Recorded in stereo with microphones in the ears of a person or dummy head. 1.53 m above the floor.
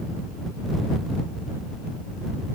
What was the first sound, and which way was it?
Only background noise.